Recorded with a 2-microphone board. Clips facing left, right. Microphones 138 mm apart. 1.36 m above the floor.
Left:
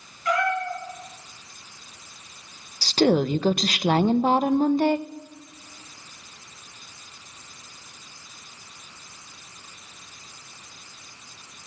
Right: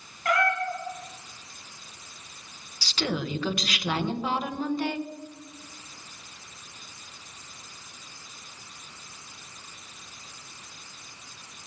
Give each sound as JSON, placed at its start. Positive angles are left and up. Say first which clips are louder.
{"t": 0.2, "sound": "a cat meowing", "louder": "left 1 dB", "side_deg": -70, "distance_m": 4.0}
{"t": 2.8, "sound": "a woman speaking", "louder": "left 11 dB", "side_deg": 45, "distance_m": 0.5}